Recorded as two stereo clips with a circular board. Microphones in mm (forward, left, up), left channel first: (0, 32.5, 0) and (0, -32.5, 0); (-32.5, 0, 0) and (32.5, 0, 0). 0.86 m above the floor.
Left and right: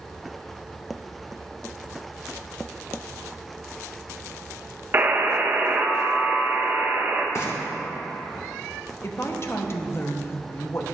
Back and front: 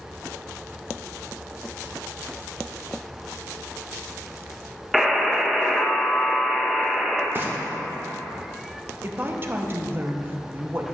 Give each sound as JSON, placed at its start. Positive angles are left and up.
{"t": 4.9, "sound": "a buzzer", "azimuth_deg": -90, "distance_m": 0.8}
{"t": 7.3, "sound": "frying", "azimuth_deg": 55, "distance_m": 1.1}
{"t": 9.0, "sound": "a woman speaking", "azimuth_deg": 50, "distance_m": 0.8}